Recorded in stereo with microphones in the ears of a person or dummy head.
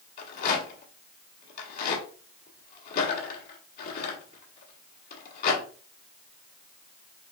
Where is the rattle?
45° left (ahead or behind), 1.5 m.